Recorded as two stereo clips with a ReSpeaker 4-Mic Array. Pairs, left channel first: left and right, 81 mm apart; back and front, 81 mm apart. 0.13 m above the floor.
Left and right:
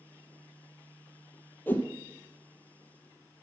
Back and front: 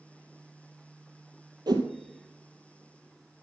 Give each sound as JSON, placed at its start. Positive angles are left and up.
{"t": 1.7, "sound": "a whoosh", "azimuth_deg": 25, "distance_m": 1.1}